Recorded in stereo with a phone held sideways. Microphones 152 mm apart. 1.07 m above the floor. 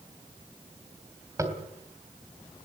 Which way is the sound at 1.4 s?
20° right (ahead or behind).